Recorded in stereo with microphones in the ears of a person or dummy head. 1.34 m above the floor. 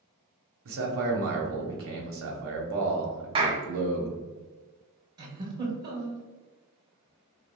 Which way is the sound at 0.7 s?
65° right (ahead or behind).